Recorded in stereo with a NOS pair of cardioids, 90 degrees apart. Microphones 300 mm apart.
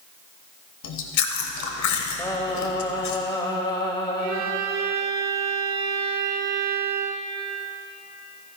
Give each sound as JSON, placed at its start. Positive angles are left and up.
{"t": 0.8, "sound": "chewing", "azimuth_deg": 70, "distance_m": 1.4}
{"t": 2.2, "sound": "singing", "azimuth_deg": 15, "distance_m": 1.9}
{"t": 4.2, "sound": "a violin", "azimuth_deg": -65, "distance_m": 1.4}